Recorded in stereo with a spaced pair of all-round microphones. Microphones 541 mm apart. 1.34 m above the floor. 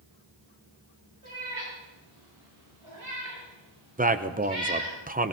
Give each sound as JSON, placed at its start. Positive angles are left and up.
{"t": 1.2, "sound": "a cat meowing", "side_deg": -70, "distance_m": 9.0}
{"t": 4.0, "sound": "a man speaking", "side_deg": -15, "distance_m": 0.6}